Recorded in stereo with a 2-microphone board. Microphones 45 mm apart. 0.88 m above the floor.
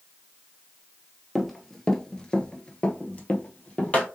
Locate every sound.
1.4 s running footsteps: centre (ahead or behind), 1.1 m; by 4.1 s 25° left (ahead or behind), 1.7 m